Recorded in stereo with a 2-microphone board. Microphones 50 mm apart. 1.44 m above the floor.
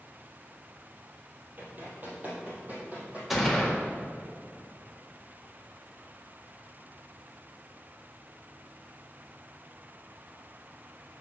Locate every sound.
1.6 s running footsteps: 40° right (ahead or behind), 2.5 m; by 3.2 s 30° right (ahead or behind), 4 m
3.3 s a gunshot: 5° right (ahead or behind), 1.6 m